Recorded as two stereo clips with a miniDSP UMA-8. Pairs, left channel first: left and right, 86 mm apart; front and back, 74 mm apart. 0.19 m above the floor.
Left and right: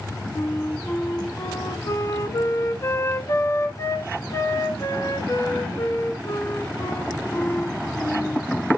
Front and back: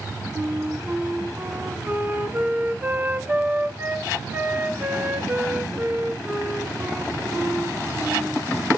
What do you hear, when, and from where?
0.3 s a flute: 125° left, 0.9 m